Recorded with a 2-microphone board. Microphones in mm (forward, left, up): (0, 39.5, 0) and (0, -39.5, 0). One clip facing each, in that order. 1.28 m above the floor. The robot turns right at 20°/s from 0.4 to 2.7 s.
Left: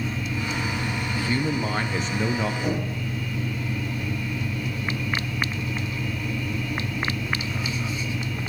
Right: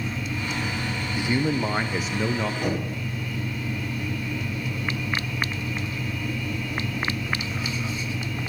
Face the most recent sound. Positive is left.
turn(degrees=-65)  # may be behind; listen again after turning